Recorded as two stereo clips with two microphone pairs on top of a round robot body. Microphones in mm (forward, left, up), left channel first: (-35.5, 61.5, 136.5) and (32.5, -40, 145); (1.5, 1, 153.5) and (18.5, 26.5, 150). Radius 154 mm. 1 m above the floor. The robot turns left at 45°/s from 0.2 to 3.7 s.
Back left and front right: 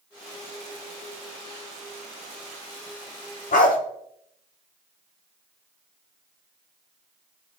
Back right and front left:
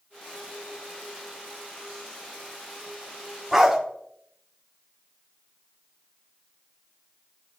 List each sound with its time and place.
3.5 s a dog barking: 140° left, 1.1 m; by 3.8 s 130° left, 1.1 m